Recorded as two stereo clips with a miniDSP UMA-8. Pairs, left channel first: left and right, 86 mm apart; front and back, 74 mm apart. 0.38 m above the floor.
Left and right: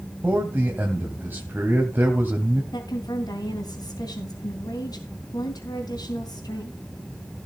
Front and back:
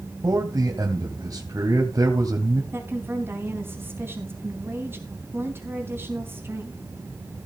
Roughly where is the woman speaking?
Behind left.